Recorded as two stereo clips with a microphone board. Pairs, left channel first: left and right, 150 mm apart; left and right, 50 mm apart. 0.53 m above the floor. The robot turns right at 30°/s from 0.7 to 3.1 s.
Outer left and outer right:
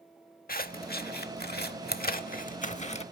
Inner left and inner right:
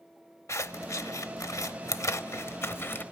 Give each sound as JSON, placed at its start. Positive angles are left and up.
{"t": 0.5, "sound": "scissors", "side_deg": 65, "distance_m": 0.7}